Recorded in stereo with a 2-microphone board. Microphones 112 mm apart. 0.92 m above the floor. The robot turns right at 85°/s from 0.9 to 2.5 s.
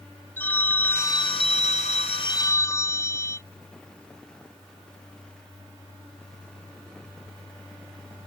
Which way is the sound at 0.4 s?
15° left.